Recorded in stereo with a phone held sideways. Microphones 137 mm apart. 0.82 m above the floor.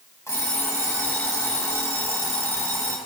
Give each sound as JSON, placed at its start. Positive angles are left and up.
{"t": 0.3, "sound": "an alarm clock", "side_deg": 20, "distance_m": 3.5}